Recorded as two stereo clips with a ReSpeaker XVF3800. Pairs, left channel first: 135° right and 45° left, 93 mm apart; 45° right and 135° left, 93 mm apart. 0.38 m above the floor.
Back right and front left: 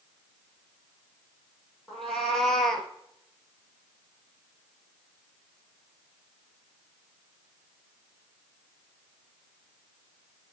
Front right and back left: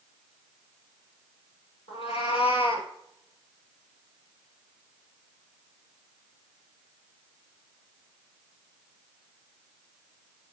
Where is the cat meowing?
50° right, 2.5 m; by 2.9 s 45° right, 1.4 m.